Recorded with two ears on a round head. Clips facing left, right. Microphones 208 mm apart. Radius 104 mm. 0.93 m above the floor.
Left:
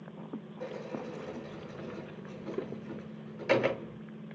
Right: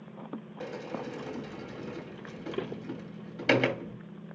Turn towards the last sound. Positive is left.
turn(degrees=-85)